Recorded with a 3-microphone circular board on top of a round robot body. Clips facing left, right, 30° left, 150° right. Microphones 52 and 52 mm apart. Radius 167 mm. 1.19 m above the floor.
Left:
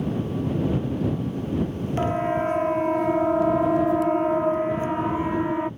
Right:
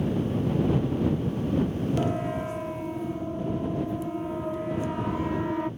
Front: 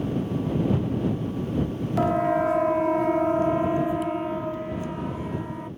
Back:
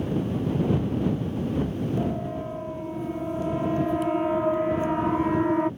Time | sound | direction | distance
2.0 | a siren | 30° left | ?